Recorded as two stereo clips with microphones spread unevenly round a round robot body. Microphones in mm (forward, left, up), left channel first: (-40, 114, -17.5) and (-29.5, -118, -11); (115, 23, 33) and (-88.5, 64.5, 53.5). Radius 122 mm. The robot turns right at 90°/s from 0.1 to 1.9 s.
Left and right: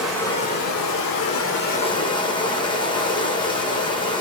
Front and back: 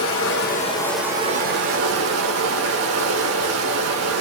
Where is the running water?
Straight ahead, 2 m; by 4.2 s 165° left, 2 m.